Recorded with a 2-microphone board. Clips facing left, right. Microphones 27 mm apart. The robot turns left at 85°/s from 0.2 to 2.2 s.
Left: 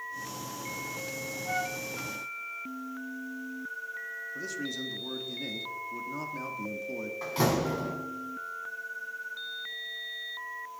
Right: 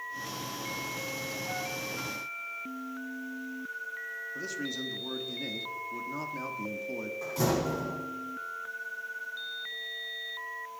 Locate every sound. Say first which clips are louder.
1.5 s a flute: left 7 dB; 20° left (ahead or behind), 0.7 m; by 1.8 s 30° left (ahead or behind), 0.7 m
4.3 s a man speaking: even; 10° right (ahead or behind), 1.4 m
7.2 s a door slam: left 2 dB; 45° left (ahead or behind), 5 m